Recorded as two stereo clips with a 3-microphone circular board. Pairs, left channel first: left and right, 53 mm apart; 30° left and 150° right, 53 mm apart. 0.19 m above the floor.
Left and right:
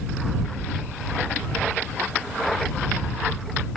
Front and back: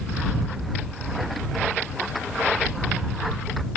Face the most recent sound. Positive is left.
No sound to turn to.